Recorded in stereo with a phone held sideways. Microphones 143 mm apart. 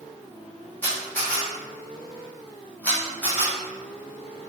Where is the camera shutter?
10° left (ahead or behind), 1.1 m.